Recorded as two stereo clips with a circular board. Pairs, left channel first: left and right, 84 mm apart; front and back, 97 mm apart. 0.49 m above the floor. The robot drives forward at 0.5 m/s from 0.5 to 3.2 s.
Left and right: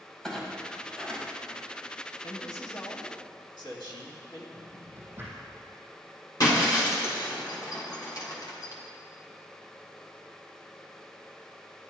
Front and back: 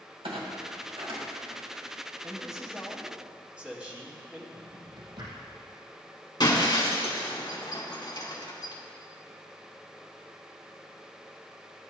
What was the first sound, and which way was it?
A clunk, 170° left.